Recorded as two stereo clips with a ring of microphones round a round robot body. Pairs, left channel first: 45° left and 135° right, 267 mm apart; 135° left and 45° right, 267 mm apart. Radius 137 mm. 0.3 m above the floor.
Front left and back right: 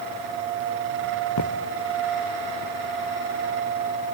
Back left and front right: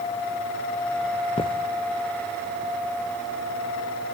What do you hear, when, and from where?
1.4 s footsteps: 65° left, 1.2 m